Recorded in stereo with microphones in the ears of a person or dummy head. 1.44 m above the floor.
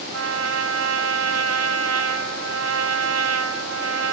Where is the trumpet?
90° right, 1.1 m.